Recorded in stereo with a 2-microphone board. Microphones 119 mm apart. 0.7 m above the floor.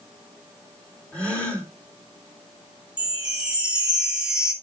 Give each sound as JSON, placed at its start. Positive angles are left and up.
{"t": 1.1, "sound": "a gasp", "side_deg": 10, "distance_m": 2.5}
{"t": 3.0, "sound": "a chime", "side_deg": -10, "distance_m": 1.6}